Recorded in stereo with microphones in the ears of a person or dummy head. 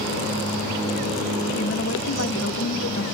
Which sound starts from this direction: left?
A woman speaking, at 1.6 s.